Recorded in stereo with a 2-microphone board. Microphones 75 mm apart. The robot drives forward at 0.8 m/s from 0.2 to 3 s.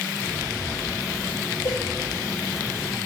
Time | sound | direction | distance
1.6 | a cowbell | 60° left (ahead or behind) | 4 m